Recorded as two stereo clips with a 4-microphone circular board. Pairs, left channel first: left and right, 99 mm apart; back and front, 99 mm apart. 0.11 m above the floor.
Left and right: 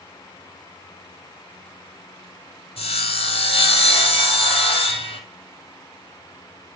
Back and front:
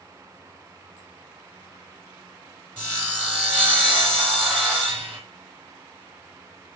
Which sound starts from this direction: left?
Sawing, at 2.8 s.